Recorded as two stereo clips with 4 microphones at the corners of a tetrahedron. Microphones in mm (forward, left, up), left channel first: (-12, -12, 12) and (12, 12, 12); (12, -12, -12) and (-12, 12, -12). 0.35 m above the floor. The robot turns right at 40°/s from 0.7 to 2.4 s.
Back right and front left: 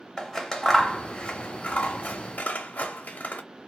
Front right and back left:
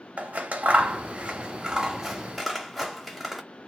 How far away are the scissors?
About 0.6 m.